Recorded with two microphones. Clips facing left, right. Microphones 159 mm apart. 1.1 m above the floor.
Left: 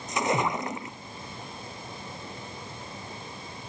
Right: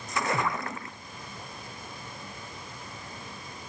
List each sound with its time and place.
0.1 s a splash: 20° left (ahead or behind)